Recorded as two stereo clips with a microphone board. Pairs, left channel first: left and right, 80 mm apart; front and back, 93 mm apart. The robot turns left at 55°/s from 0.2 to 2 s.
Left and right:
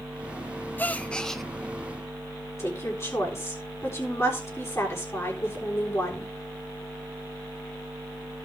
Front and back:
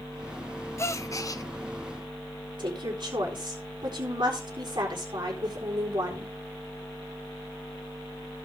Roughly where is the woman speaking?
Behind left.